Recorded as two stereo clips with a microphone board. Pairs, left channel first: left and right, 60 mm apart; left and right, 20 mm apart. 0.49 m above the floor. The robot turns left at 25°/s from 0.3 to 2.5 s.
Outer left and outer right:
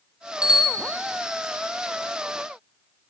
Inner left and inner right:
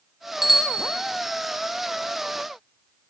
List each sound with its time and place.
0.4 s a bicycle bell: 15° right (ahead or behind), 3 m; by 0.9 s centre (ahead or behind), 3 m